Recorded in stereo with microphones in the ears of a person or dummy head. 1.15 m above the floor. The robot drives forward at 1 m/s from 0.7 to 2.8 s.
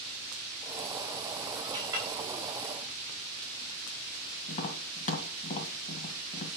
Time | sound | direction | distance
1.7 | a clink | 25° right (ahead or behind) | 5 m
4.5 | tapping | 35° left (ahead or behind) | 1.9 m